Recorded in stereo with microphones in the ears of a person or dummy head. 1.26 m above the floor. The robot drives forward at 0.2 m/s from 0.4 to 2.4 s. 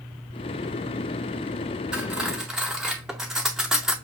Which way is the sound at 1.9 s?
5° right (ahead or behind).